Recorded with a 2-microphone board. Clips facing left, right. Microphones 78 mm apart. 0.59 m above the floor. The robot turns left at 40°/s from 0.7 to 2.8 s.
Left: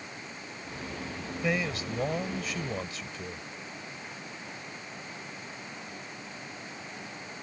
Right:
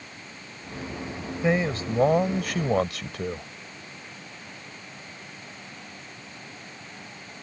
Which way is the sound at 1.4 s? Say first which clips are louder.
Right 6 dB; 25° right.